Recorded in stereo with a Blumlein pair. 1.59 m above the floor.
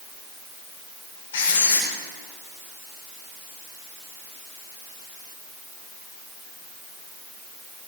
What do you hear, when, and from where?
1.3 s writing: 60° left, 7 m